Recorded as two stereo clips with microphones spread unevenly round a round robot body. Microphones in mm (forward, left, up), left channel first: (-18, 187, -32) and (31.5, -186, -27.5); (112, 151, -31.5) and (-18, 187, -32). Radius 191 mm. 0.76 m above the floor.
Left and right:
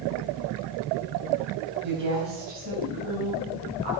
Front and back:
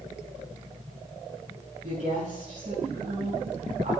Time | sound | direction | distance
1.8 | a woman speaking | 135° right | 5.5 m